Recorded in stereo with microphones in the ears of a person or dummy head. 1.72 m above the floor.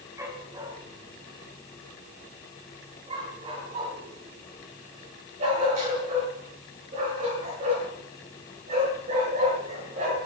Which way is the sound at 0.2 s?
10° right (ahead or behind).